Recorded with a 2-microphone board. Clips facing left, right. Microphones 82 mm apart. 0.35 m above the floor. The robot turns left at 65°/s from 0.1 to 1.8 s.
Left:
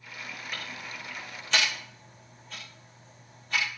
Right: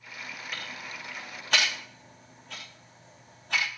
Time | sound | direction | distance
0.5 | ticking | 15° left (ahead or behind) | 6.5 m